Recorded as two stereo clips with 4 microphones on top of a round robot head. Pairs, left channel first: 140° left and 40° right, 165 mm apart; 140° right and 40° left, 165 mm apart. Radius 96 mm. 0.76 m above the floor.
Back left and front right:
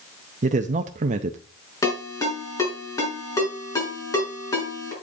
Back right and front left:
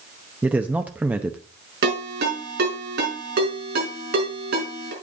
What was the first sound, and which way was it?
A man speaking, 40° right.